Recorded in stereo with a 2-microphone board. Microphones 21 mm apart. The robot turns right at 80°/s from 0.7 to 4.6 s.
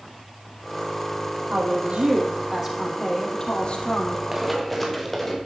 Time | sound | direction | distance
1.5 | a woman speaking | 115° right | 5.5 m
4.3 | running footsteps | 20° right (ahead or behind) | 3 m